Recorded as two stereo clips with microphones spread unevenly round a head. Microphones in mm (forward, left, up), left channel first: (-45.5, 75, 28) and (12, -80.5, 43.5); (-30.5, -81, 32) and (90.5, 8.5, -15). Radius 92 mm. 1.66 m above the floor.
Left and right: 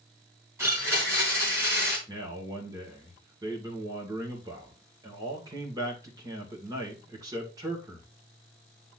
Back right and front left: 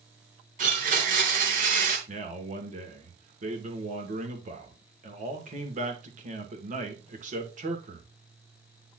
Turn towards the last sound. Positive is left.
turn(degrees=0)